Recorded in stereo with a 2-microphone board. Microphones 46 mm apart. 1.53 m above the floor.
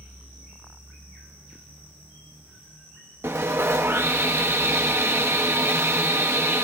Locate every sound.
3.2 s sawing: 75° right (ahead or behind), 1.8 m